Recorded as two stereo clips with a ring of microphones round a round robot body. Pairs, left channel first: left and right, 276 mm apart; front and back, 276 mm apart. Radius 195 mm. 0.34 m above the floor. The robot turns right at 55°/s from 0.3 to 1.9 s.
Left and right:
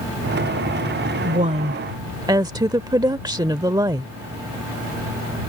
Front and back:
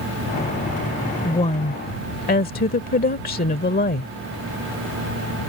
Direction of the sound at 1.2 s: 60° right.